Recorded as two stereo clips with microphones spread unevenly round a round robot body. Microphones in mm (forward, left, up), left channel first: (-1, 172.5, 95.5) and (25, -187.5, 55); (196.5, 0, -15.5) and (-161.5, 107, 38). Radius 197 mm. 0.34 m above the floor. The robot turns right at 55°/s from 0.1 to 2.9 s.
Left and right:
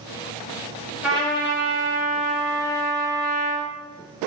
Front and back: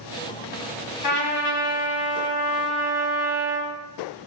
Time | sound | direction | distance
1.0 | a trumpet | 5° right | 0.8 m